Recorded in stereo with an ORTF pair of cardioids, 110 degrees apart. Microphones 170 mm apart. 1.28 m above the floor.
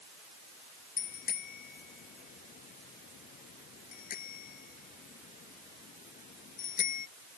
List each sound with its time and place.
1.0 s a bicycle bell: 55° left; by 7.1 s 50° left